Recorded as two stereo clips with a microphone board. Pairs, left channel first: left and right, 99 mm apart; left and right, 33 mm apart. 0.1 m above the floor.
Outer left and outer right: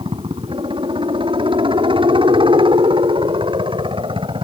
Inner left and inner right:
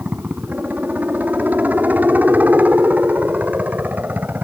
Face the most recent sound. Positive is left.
turn(degrees=-60)  # may be behind; listen again after turning